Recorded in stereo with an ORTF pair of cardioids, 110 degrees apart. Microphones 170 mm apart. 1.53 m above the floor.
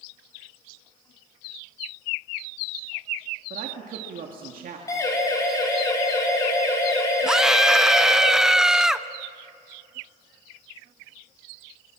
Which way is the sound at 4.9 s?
20° left.